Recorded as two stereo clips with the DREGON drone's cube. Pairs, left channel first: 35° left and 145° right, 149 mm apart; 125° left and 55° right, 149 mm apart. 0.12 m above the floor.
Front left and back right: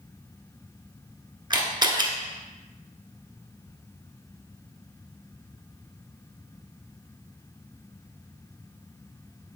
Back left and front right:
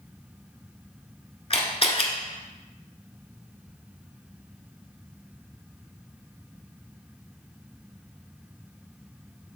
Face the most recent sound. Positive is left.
turn(degrees=165)